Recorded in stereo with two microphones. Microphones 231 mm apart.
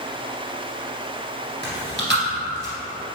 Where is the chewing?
50° right (ahead or behind), 1.4 m.